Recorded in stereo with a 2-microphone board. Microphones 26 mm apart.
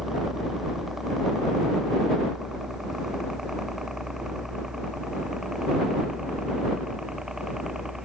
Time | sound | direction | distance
0.0 | a helicopter | 10° right (ahead or behind) | ?